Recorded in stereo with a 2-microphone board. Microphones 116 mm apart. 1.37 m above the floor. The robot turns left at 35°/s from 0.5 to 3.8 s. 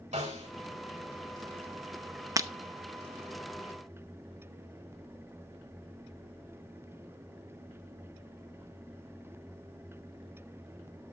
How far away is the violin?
No violin in this recording.